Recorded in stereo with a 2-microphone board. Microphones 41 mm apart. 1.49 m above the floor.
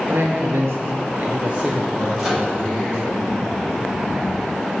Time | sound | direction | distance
0.1 | a man speaking | 70° right (ahead or behind) | 1.0 m
2.2 | a microwave | 10° right (ahead or behind) | 1.7 m